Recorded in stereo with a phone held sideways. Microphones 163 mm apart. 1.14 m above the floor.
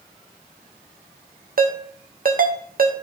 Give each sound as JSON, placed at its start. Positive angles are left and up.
{"t": 1.6, "sound": "a ringtone", "side_deg": -60, "distance_m": 0.8}